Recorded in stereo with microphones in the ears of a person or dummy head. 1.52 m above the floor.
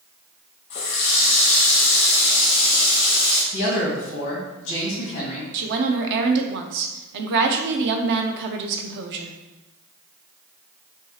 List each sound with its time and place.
0.7 s a running tap: 30° left (ahead or behind), 0.8 m
3.5 s a man speaking: 60° left (ahead or behind), 1.9 m
5.5 s a woman speaking: 60° right (ahead or behind), 0.7 m